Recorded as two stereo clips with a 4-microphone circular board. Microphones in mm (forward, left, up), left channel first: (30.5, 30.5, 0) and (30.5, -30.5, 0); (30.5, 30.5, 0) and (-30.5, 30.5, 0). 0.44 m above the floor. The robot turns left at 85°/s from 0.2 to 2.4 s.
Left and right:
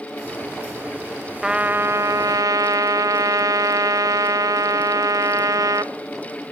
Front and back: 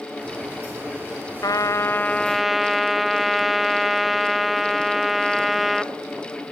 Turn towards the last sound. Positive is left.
turn(degrees=-95)